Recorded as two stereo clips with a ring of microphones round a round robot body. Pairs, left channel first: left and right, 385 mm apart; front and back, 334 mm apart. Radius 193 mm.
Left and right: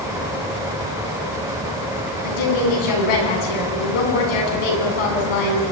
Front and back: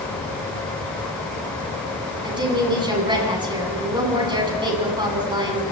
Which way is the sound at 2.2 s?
105° left.